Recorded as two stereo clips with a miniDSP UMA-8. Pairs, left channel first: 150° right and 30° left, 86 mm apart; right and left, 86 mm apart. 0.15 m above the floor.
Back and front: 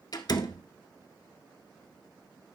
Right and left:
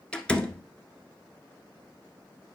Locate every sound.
0.1 s a door slam: 170° right, 1.3 m